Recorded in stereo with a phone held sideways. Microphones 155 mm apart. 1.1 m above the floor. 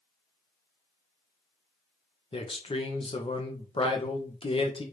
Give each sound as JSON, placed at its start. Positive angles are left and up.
{"t": 2.3, "sound": "a man speaking", "side_deg": 40, "distance_m": 0.8}